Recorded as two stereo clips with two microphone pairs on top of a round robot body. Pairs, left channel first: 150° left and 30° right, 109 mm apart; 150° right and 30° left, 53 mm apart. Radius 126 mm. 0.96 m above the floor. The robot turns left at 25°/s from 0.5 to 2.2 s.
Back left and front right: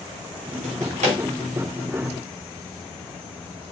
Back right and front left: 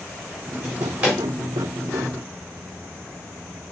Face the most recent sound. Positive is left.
turn(degrees=-75)